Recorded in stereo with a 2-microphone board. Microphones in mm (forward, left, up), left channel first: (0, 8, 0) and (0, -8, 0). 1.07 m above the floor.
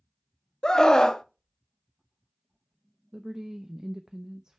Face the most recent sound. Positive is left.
turn(degrees=-35)  # may be behind; listen again after turning